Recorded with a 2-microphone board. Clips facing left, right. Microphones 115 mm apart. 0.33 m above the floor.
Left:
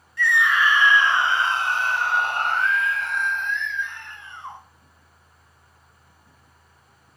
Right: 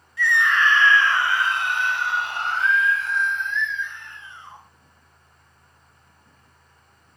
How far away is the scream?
About 1.7 m.